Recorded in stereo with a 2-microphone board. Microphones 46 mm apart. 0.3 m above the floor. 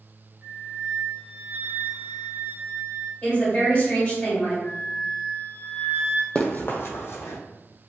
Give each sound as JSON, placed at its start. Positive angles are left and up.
{"t": 0.4, "sound": "a flute", "side_deg": -35, "distance_m": 0.8}
{"t": 3.2, "sound": "a woman speaking", "side_deg": 35, "distance_m": 2.0}
{"t": 4.6, "sound": "a flute", "side_deg": 60, "distance_m": 0.9}
{"t": 6.3, "sound": "running footsteps", "side_deg": 30, "distance_m": 0.6}